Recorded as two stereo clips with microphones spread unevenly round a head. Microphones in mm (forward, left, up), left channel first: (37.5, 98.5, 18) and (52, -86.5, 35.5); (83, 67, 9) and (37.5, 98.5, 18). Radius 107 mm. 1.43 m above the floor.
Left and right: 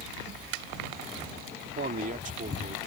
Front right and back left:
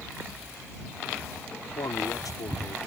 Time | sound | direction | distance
1.6 | a man speaking | 45° right | ?